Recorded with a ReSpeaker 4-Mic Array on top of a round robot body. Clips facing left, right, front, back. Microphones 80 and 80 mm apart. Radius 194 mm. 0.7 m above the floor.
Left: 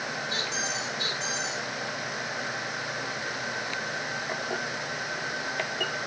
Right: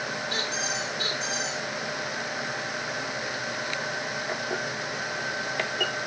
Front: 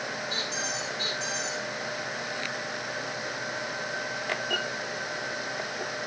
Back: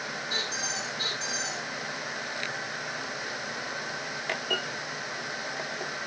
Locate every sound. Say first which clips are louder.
0.3 s a squeak: right 1 dB, front 1 dB; 130° right, 8 m